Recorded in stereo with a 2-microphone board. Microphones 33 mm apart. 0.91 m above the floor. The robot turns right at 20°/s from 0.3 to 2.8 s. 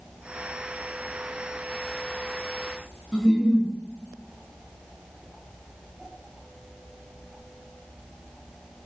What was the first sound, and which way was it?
A giggle, 10° right (ahead or behind).